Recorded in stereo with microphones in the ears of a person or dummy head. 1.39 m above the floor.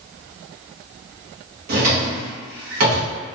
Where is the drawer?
50° right (ahead or behind), 1.0 m.